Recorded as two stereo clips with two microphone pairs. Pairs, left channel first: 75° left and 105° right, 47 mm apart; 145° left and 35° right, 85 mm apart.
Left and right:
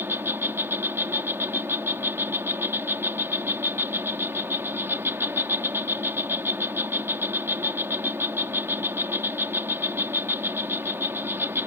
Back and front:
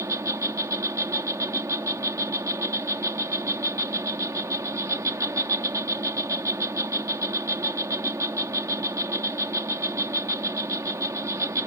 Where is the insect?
80° right.